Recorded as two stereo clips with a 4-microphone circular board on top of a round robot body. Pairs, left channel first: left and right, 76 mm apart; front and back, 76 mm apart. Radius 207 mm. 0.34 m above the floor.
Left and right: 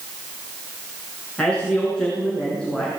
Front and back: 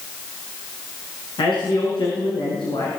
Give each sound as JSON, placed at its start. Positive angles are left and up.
{"t": 1.4, "sound": "a man speaking", "azimuth_deg": 10, "distance_m": 7.5}